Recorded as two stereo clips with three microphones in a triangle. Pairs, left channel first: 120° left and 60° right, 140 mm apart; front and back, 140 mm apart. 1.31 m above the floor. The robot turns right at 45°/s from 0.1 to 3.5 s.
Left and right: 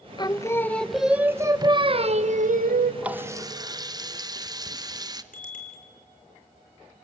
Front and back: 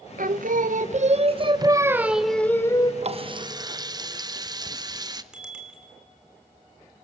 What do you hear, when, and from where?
0.2 s singing: 175° left, 0.8 m; by 2.9 s 60° right, 0.8 m
3.0 s a running tap: 140° right, 0.8 m; by 5.2 s 120° right, 0.8 m
5.3 s a bicycle bell: 95° left, 3 m